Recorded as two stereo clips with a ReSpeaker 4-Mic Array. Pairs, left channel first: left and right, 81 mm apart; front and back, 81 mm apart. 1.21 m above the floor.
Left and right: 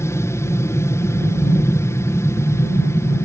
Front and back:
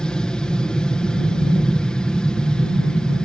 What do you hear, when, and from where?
0.0 s an aircraft: 75° left